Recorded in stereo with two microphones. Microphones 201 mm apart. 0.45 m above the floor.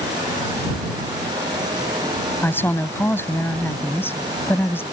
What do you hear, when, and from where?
2.4 s a woman speaking: 10° left (ahead or behind)